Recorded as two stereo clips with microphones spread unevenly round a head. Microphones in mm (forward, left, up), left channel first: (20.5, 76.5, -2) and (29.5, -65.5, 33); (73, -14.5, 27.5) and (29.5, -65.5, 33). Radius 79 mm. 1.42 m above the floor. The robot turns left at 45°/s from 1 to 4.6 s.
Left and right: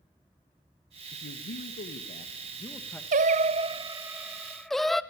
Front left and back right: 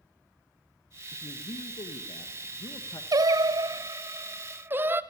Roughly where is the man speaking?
Left.